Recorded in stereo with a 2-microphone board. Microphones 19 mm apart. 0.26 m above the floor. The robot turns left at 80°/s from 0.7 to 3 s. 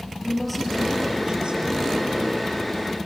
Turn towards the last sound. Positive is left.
turn(degrees=-175)